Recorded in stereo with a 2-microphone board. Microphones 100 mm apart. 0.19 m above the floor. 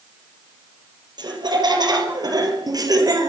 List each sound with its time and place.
1.2 s laughter: 45° right (ahead or behind), 5.5 m; by 3.3 s 35° right (ahead or behind), 4.5 m